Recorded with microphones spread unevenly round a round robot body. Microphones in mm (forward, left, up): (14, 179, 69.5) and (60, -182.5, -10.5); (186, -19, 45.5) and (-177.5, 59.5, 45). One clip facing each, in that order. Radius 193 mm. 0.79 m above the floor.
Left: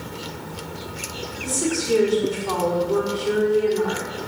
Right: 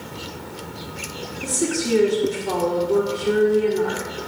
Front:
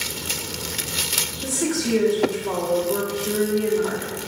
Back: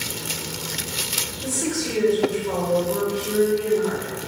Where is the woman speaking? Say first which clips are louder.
Right 1 dB, front 2 dB; 30° right, 1.8 m.